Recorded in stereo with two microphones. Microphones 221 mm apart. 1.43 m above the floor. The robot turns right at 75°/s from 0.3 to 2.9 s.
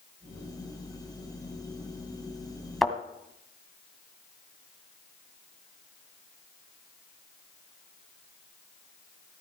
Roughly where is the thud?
Centre.